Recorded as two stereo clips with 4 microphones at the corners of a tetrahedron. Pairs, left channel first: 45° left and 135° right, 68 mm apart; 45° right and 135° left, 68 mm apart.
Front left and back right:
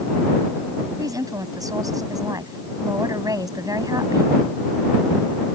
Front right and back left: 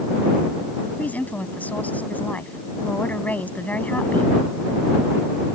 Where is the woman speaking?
110° right.